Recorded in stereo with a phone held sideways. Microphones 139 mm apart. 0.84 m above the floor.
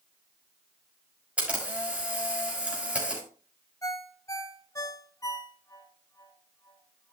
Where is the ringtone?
25° left (ahead or behind), 0.9 m.